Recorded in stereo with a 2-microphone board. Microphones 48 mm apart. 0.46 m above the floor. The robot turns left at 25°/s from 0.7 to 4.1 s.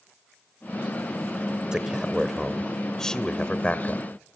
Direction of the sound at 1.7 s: 15° right (ahead or behind).